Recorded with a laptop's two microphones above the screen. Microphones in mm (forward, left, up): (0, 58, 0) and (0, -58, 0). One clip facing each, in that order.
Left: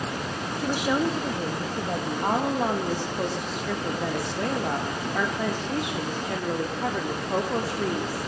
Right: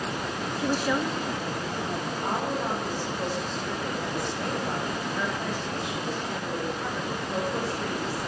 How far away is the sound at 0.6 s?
About 0.8 m.